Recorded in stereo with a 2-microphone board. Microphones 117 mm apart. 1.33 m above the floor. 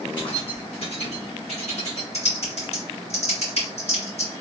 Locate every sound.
0.2 s keys jangling: 45° left (ahead or behind), 1.4 m; by 2.0 s 70° left (ahead or behind), 1.9 m
2.1 s typing on a keyboard: 65° left (ahead or behind), 1.9 m